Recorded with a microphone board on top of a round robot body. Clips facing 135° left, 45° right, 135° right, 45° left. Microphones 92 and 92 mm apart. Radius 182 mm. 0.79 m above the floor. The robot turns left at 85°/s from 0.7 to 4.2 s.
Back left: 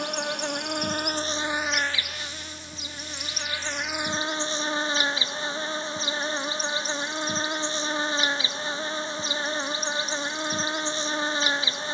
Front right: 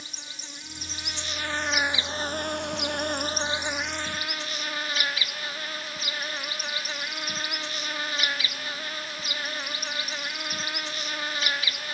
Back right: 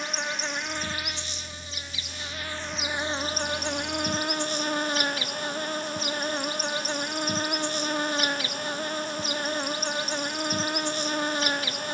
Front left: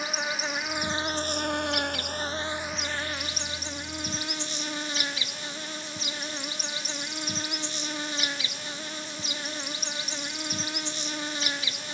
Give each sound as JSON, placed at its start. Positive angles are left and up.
{"t": 0.0, "sound": "an insect", "azimuth_deg": 130}